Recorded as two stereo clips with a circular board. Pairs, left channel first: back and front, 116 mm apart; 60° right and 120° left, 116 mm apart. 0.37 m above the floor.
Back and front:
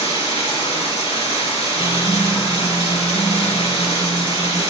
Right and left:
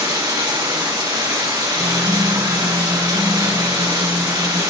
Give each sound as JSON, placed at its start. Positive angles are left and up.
{"t": 0.0, "sound": "running water", "azimuth_deg": 165, "distance_m": 3.5}
{"t": 1.8, "sound": "a guitar", "azimuth_deg": 165, "distance_m": 1.3}